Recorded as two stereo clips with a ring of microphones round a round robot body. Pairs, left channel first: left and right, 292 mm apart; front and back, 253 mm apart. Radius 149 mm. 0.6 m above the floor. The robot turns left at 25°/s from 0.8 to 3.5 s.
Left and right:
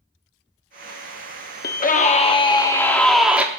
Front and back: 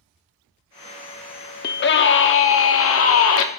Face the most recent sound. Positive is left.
turn(degrees=-10)